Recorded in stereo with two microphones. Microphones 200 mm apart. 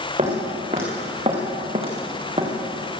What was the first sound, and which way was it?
Footsteps, 30° right (ahead or behind).